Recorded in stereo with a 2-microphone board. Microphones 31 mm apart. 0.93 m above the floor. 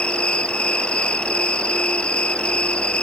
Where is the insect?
40° left (ahead or behind).